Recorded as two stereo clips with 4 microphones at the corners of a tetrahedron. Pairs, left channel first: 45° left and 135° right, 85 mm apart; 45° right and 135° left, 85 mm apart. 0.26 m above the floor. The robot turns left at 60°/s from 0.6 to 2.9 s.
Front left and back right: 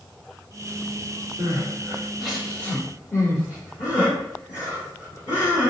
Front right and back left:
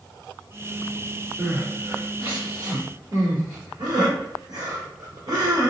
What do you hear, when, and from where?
1.4 s crying: 170° right, 1.7 m; by 5.7 s 95° left, 1.7 m